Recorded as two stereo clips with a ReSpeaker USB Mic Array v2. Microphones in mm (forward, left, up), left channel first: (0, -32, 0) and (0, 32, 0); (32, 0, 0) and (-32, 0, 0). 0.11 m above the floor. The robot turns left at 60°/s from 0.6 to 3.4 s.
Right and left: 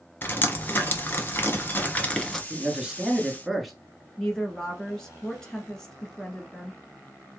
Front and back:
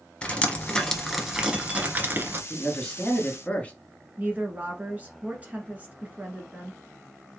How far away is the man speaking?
About 1.2 m.